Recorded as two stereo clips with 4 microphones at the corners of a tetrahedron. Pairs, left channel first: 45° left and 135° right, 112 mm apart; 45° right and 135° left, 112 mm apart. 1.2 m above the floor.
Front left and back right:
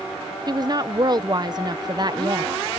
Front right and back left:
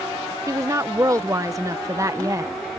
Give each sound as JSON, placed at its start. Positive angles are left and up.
{"t": 0.5, "sound": "a woman speaking", "azimuth_deg": -175}